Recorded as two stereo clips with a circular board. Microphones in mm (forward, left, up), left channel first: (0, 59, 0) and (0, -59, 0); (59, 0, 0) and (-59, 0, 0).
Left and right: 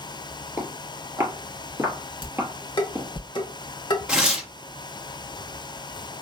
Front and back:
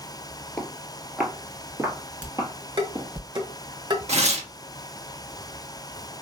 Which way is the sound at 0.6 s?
60° right.